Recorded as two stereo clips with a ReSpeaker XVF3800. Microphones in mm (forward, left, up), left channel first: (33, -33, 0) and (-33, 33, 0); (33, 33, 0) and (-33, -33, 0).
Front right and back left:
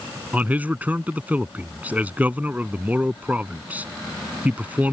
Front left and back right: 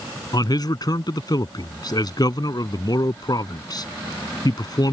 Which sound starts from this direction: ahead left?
A man speaking, at 0.3 s.